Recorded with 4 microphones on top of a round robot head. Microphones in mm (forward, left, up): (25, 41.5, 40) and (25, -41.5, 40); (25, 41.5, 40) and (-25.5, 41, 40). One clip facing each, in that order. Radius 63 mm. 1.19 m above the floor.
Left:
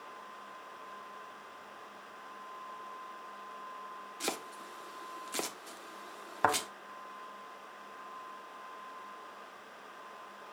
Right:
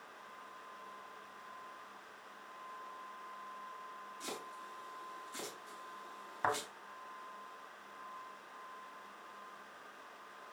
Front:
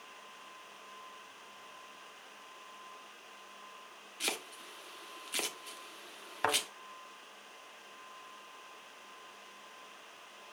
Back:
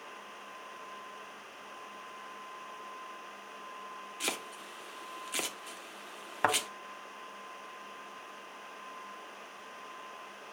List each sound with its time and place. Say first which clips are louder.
4.2 s chopping: left 8 dB, back 1 dB; 100° left, 1.0 m
6.4 s a thud: left 6 dB, back 3 dB; 115° left, 1.3 m